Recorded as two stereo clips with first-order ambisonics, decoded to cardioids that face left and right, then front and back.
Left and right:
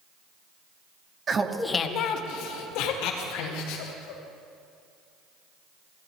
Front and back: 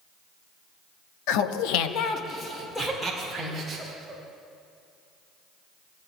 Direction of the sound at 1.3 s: 25° right.